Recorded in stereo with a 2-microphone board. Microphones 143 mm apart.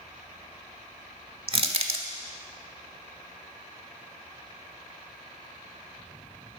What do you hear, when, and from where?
1.5 s crushing: 40° right (ahead or behind), 0.6 m